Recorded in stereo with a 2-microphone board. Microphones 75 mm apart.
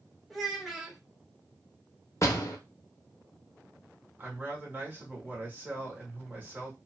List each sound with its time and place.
0.3 s a child speaking: 5° right (ahead or behind), 0.5 m
2.2 s a door slam: 40° left (ahead or behind), 0.6 m
4.2 s a woman speaking: 30° right (ahead or behind), 1.2 m